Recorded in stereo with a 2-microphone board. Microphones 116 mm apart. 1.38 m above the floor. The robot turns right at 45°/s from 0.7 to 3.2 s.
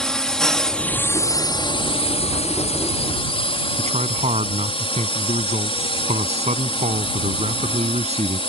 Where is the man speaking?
75° right (ahead or behind).